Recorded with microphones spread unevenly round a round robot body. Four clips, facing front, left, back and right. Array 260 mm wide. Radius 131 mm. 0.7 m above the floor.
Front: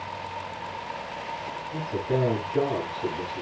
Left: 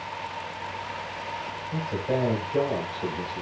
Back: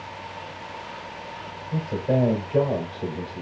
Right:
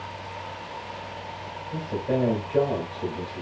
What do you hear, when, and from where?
1.7 s a man speaking: 160° right, 2.5 m